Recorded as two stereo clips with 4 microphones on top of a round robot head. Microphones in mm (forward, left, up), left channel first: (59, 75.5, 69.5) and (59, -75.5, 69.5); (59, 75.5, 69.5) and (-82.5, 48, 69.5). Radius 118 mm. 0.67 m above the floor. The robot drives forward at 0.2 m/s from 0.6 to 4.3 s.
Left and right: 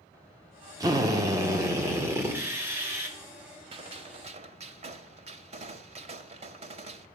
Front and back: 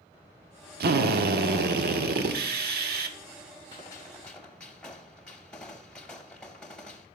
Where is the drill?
160° right, 0.8 m; by 3.2 s 170° right, 1.2 m.